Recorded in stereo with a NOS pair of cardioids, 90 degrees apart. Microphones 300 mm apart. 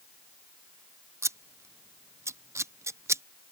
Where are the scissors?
10° right.